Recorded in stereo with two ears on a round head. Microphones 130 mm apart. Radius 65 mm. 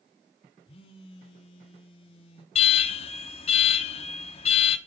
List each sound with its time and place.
0.7 s a phone buzzing: 40° left (ahead or behind), 1.6 m
2.5 s an alarm: 45° left (ahead or behind), 1.0 m